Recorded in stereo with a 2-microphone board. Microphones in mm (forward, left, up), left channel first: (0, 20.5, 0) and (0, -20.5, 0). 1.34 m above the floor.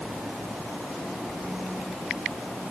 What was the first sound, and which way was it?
Only background noise.